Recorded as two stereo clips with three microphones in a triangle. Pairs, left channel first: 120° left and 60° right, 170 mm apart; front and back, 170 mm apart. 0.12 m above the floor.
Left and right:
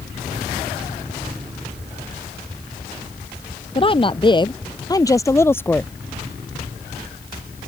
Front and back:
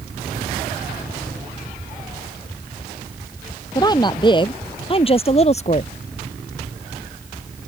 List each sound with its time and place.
3.8 s a woman speaking: 65° left; by 5.9 s 40° left